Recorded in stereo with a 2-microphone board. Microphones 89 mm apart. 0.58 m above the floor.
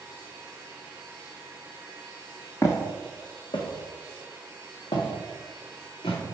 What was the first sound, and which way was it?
Footsteps, 30° left (ahead or behind).